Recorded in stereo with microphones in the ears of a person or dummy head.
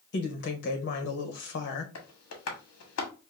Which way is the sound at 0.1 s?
55° left (ahead or behind).